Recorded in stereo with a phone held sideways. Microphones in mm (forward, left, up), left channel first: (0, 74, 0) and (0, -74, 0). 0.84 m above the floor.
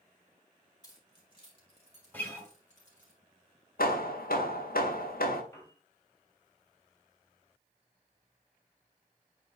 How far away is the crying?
No crying in this recording.